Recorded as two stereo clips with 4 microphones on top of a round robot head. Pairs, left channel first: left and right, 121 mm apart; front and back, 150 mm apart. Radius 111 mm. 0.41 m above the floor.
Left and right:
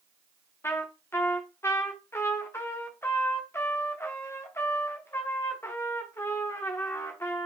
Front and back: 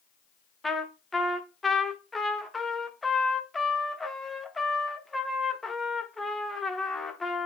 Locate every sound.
0.6 s a trumpet: 85° left, 0.8 m